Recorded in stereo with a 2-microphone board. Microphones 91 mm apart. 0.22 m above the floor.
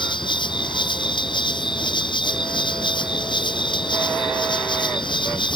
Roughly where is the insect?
Left.